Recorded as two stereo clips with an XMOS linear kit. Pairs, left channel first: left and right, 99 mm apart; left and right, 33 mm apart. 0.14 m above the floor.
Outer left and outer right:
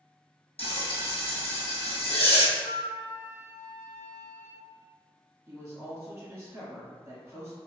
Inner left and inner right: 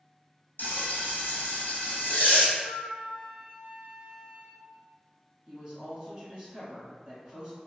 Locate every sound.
0.6 s frying: 75° left (ahead or behind), 1.0 m
2.5 s a flute: centre (ahead or behind), 1.1 m
5.5 s a woman speaking: 30° right (ahead or behind), 1.2 m